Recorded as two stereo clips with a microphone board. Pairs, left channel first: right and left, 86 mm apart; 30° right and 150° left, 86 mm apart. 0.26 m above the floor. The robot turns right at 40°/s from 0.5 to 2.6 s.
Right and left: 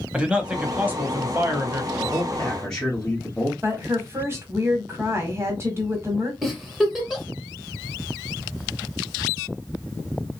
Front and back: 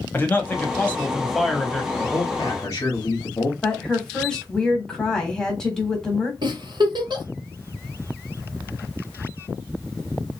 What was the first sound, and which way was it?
A man speaking, 20° left.